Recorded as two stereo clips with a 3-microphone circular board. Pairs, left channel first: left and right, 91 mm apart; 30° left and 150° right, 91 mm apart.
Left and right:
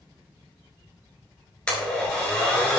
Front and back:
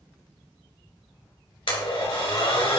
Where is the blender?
10° left, 3.5 m.